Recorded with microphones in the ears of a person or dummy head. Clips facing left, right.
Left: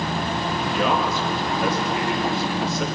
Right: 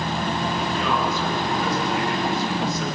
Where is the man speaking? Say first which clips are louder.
Left 5 dB; 65° left (ahead or behind), 3.5 m.